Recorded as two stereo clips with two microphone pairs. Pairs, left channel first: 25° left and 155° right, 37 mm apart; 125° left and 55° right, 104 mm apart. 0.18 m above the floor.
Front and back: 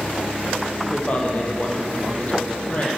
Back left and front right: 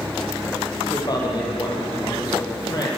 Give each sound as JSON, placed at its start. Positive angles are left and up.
{"t": 0.9, "sound": "a man speaking", "azimuth_deg": 75, "distance_m": 7.5}